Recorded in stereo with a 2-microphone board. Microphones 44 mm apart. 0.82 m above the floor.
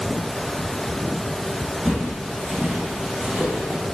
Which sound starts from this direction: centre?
Footsteps, at 1.9 s.